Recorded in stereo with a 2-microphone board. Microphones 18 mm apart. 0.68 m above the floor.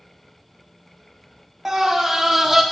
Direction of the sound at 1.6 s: 25° right (ahead or behind).